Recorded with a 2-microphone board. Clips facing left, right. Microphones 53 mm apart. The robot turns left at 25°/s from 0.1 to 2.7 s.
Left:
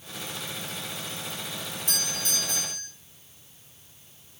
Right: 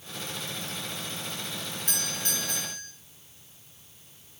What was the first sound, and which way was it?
A doorbell, 50° right (ahead or behind).